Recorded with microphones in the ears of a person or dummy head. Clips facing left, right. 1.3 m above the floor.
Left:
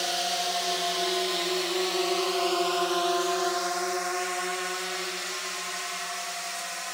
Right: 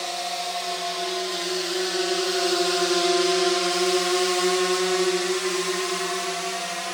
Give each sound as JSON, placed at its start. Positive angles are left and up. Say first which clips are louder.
{"t": 0.0, "sound": "a drone", "louder": "even", "side_deg": 5}